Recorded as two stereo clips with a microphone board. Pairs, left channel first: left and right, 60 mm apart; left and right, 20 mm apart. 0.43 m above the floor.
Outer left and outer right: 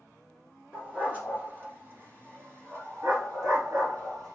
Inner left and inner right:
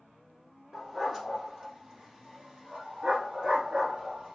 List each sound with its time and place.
0.7 s a dog barking: 25° right (ahead or behind), 2.5 m; by 4.4 s 80° right, 2 m